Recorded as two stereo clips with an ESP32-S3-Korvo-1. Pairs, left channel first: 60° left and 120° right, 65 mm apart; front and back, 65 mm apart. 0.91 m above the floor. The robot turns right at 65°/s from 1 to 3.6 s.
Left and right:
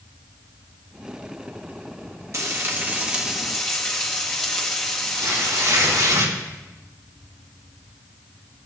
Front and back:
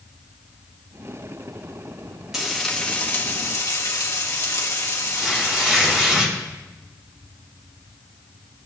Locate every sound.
2.3 s frying: 100° right, 1.7 m; by 6.2 s 15° right, 1.7 m
5.2 s tearing paper: 100° right, 3.5 m